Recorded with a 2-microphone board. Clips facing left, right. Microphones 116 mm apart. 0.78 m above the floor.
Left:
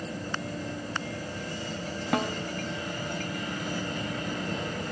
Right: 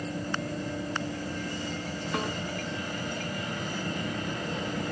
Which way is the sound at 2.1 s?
80° left.